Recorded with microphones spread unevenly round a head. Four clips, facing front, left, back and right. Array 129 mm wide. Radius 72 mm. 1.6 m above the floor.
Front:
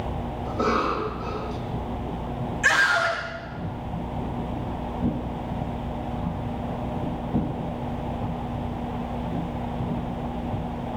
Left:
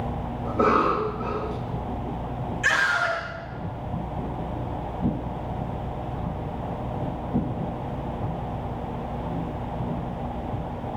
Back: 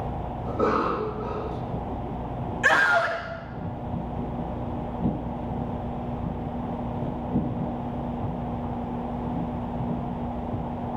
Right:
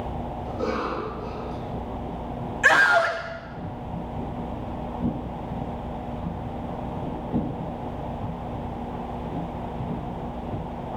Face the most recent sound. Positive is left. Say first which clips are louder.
# right 5 dB, back 1 dB
turn(degrees=-115)